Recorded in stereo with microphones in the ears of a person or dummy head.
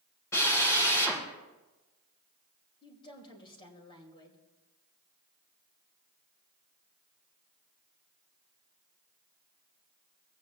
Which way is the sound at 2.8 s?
25° left (ahead or behind).